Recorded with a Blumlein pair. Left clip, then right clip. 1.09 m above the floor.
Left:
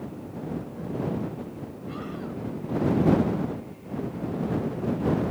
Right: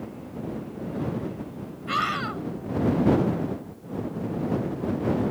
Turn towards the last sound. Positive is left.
turn(degrees=-50)